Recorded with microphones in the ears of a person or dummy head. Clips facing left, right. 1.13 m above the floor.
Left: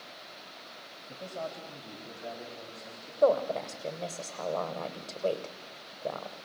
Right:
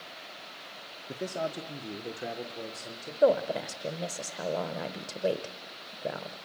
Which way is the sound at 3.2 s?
15° right (ahead or behind).